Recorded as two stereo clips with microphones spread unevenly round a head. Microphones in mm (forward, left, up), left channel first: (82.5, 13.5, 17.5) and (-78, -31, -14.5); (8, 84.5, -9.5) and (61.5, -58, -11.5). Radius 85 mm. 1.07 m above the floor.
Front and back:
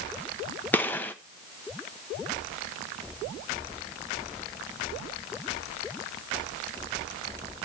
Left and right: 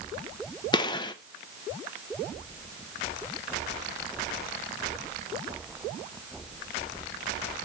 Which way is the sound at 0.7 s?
105° left.